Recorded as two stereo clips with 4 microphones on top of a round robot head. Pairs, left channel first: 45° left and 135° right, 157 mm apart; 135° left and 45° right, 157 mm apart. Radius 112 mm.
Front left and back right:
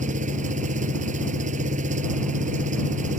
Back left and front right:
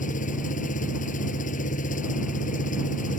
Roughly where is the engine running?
Behind.